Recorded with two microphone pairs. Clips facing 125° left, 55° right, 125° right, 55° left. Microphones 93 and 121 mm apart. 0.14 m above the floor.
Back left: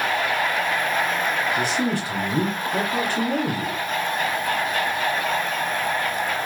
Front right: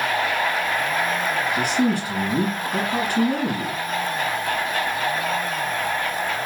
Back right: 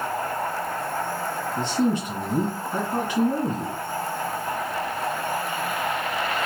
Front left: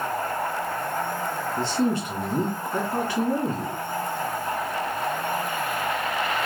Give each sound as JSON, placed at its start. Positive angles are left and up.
{"t": 1.6, "sound": "a man speaking", "azimuth_deg": -90, "distance_m": 1.7}